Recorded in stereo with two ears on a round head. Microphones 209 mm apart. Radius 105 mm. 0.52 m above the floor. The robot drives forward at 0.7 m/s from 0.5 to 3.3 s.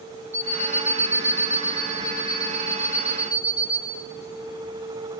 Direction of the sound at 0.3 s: 15° right (ahead or behind).